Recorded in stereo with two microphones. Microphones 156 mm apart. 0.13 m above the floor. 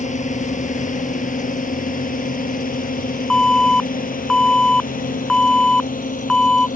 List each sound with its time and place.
0.0 s a drone: 50° left (ahead or behind); by 6.8 s 60° left (ahead or behind)
3.3 s an alarm: 5° left (ahead or behind)